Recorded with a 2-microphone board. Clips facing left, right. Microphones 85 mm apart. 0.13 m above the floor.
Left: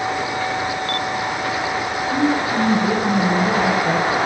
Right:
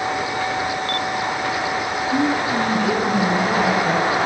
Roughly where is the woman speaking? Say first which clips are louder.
Left 1 dB; left.